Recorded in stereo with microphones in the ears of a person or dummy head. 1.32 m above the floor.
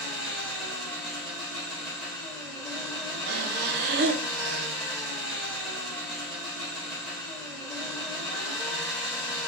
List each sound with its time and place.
0.0 s an engine running: 5° left (ahead or behind), 3.5 m
3.3 s breathing: 60° right (ahead or behind), 0.5 m